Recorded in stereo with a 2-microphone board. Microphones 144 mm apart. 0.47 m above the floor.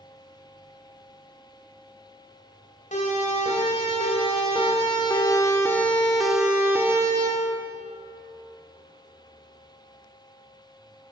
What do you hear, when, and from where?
2.9 s a siren: 60° left (ahead or behind), 3.5 m; by 7.3 s 30° right (ahead or behind), 2 m